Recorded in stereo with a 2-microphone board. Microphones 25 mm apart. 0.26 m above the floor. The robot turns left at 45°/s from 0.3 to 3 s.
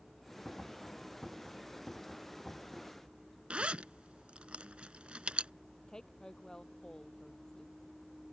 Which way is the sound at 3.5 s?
55° right (ahead or behind).